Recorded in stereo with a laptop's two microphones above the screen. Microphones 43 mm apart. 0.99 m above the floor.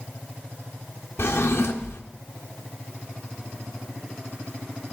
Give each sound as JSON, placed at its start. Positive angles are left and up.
{"t": 1.2, "sound": "a drawer", "side_deg": 70, "distance_m": 1.0}